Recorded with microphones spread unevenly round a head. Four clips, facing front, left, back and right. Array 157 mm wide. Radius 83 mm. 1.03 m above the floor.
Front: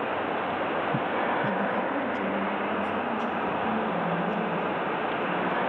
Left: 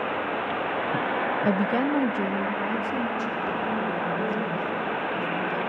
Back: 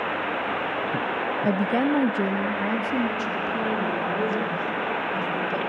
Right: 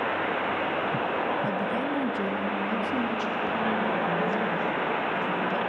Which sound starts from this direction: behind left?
A woman speaking, at 1.4 s.